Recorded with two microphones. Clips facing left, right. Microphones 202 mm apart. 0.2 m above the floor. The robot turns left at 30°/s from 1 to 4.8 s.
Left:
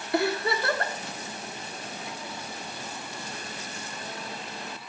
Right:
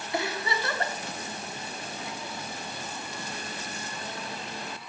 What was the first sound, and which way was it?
A giggle, 55° left (ahead or behind).